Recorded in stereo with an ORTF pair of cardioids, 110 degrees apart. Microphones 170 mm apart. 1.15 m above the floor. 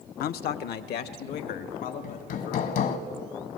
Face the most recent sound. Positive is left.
turn(degrees=65)